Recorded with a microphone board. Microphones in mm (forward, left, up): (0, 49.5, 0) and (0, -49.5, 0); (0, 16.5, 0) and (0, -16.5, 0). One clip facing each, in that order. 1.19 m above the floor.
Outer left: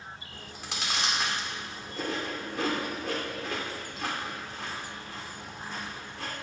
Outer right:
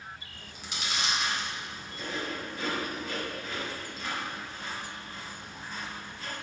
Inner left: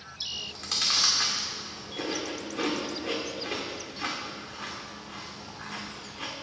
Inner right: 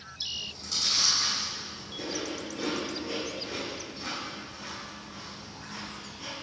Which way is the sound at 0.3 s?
80° left.